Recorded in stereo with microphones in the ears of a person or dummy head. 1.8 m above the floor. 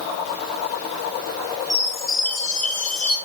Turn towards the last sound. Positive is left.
turn(degrees=0)  # may be behind; listen again after turning